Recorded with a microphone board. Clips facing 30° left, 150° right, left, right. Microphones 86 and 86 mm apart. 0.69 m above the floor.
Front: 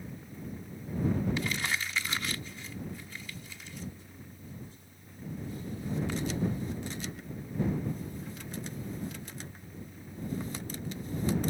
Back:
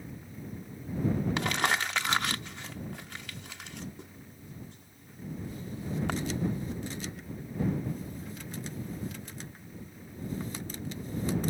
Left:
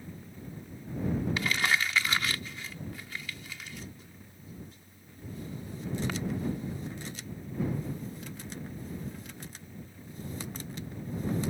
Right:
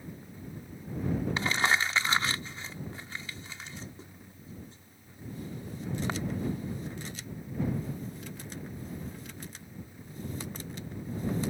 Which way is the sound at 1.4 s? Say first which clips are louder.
Back 5 dB, right 4 dB; 145° right.